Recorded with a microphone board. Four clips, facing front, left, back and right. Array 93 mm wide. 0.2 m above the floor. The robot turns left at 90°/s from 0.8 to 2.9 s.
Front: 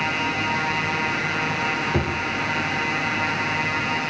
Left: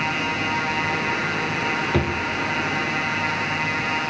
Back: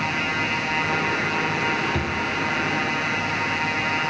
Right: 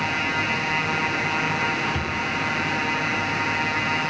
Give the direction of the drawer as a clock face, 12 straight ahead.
10 o'clock.